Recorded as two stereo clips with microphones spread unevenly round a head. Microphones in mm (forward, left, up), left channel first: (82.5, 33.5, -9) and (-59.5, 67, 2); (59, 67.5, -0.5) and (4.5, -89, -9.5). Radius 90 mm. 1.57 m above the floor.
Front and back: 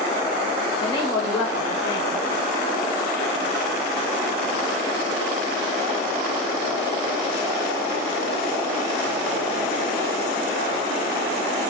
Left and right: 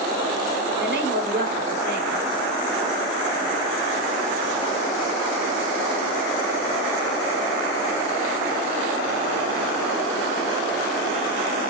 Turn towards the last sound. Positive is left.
turn(degrees=-80)